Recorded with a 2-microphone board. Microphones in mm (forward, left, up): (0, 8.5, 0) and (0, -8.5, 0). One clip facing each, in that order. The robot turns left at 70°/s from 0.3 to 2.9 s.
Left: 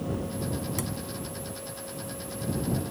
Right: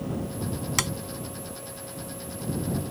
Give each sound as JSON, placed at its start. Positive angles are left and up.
{"t": 0.8, "sound": "tapping", "side_deg": -70}